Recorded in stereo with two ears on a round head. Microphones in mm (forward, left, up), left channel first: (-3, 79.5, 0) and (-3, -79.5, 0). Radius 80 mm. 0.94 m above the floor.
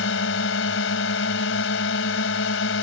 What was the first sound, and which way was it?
A drone, 80° left.